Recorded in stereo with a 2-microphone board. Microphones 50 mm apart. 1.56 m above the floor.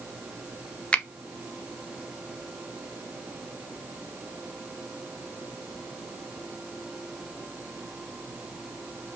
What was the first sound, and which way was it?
A finger snap, 20° left (ahead or behind).